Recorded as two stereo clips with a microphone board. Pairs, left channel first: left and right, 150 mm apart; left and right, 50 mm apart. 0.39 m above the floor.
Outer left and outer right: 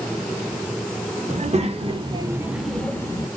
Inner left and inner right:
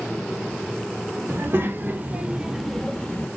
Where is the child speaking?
50° right (ahead or behind), 1.4 m; by 3.3 s 30° left (ahead or behind), 0.9 m.